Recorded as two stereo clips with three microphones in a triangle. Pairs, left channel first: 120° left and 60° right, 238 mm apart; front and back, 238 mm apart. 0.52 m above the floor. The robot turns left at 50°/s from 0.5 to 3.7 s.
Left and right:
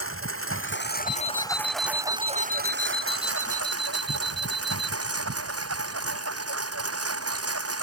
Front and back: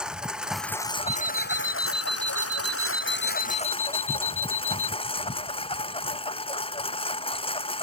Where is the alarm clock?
170° right; by 4.9 s 60° left.